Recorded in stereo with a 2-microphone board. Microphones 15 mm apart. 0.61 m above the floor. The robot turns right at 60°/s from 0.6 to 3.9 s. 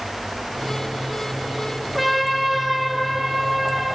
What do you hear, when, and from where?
1.9 s a trumpet: straight behind, 1.2 m; by 3.9 s 65° right, 1.2 m